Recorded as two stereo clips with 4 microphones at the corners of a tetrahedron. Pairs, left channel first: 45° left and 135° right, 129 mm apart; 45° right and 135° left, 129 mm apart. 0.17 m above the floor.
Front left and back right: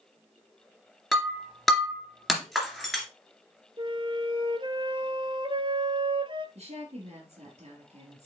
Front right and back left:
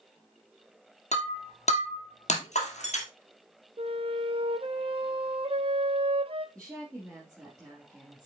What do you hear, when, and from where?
1.1 s breaking glass: 45° right, 2 m
3.8 s a flute: 175° left, 0.8 m
6.5 s a woman speaking: 145° right, 3 m